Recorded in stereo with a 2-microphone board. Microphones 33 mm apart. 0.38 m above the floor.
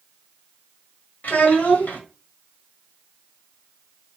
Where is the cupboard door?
No cupboard door in this recording.